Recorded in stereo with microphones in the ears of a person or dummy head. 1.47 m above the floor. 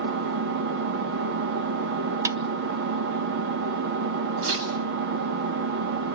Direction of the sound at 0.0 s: 50° right (ahead or behind).